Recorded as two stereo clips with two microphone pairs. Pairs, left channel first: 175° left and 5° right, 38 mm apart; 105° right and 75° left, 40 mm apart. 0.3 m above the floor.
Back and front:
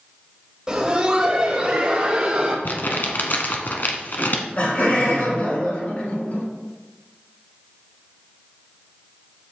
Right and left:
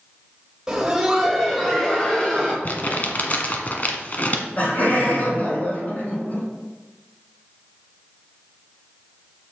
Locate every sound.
0.7 s laughter: 35° left, 1.1 m; by 2.5 s 65° right, 1.4 m
2.6 s crumpling: 155° right, 1.1 m
4.2 s laughter: 150° right, 3.5 m